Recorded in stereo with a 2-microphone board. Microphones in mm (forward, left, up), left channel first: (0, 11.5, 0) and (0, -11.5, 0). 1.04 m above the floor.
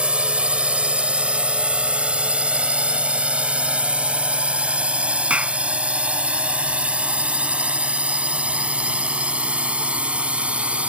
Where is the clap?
80° right.